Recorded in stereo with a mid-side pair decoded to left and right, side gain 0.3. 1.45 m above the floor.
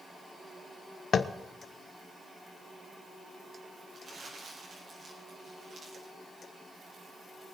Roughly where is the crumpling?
Ahead right.